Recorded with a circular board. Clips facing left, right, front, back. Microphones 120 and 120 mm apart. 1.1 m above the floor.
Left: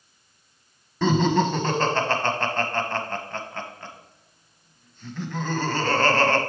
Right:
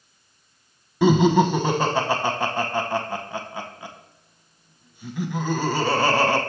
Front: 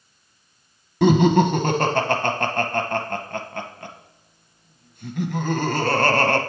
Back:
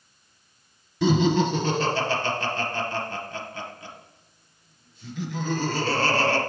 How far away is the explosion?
I don't hear an explosion.